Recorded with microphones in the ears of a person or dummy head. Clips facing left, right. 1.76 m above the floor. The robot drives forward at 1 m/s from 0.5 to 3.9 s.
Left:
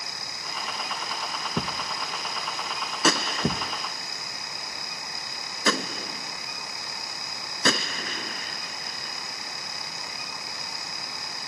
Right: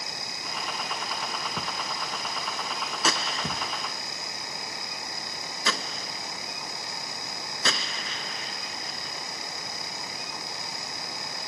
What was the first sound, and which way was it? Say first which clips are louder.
A thud: left 3 dB; 35° left (ahead or behind).